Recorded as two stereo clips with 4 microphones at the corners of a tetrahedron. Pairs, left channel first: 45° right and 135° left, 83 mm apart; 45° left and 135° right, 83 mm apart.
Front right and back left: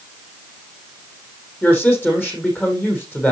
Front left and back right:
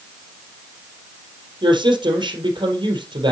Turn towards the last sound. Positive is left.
turn(degrees=-115)